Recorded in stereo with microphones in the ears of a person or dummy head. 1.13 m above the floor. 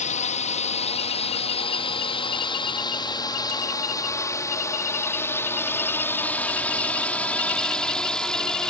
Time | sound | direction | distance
0.0 | a drone | 45° left (ahead or behind) | ?